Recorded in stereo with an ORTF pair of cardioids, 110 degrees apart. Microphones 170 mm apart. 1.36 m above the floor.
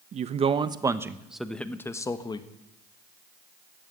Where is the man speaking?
45° right, 1.2 m; by 2.5 s 30° left, 1.4 m.